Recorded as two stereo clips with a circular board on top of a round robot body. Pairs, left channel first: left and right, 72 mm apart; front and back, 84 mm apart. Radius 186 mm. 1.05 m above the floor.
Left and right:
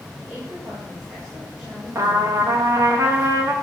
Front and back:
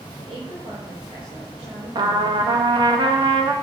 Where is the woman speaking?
160° right, 6 m.